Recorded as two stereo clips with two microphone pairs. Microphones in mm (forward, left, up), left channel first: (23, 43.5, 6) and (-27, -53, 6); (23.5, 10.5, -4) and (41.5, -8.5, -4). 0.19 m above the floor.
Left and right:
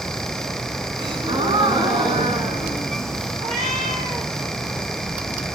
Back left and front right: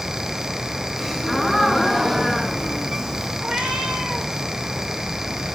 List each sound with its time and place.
1.0 s a gasp: 130° right, 1.9 m
3.4 s a cat meowing: 90° right, 2.5 m